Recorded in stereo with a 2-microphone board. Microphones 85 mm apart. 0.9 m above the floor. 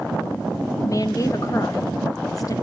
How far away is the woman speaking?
About 0.7 m.